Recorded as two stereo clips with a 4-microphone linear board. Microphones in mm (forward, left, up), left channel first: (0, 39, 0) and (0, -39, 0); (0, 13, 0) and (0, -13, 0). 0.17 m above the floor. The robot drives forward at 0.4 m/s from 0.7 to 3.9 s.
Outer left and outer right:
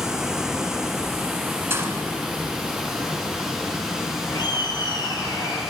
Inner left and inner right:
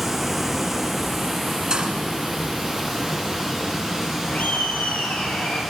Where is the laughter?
70° left (ahead or behind), 3.5 m.